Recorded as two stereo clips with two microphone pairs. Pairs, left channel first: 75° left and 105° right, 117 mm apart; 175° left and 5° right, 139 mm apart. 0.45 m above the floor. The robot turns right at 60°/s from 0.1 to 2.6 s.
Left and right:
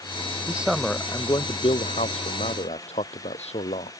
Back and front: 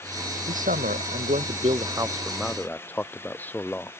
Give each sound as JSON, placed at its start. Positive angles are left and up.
{"t": 0.5, "sound": "a man speaking", "azimuth_deg": -30}